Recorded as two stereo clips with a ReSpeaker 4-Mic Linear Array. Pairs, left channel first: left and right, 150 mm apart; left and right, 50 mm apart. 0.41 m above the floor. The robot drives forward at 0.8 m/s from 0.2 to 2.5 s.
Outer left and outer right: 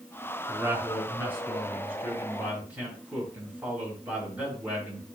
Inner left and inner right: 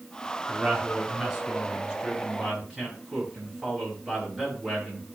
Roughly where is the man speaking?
Centre.